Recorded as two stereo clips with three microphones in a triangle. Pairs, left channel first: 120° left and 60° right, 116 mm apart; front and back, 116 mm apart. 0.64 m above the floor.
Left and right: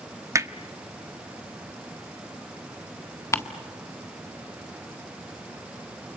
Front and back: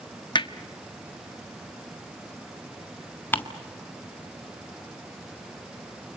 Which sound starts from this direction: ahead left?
Ticking, at 3.3 s.